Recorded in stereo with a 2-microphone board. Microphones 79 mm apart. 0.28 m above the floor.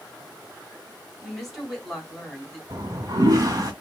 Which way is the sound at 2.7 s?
50° right (ahead or behind).